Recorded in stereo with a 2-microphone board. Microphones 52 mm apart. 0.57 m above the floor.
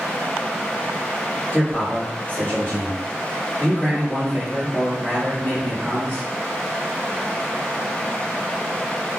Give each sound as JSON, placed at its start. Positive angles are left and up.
{"t": 1.5, "sound": "a man speaking", "side_deg": 35, "distance_m": 1.5}